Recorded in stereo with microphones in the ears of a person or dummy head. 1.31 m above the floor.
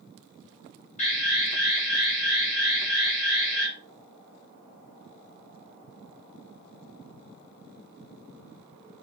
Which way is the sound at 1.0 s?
35° left (ahead or behind).